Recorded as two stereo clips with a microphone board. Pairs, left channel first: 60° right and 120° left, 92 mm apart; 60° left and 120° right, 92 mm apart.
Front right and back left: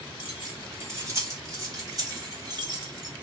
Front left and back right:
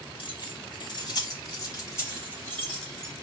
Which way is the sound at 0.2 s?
50° left.